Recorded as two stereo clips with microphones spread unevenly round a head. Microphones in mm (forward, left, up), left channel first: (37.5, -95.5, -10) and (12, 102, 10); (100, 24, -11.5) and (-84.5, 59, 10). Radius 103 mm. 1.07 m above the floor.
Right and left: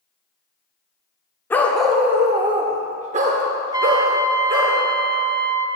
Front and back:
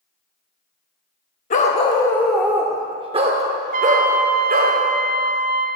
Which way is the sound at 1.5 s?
Straight ahead.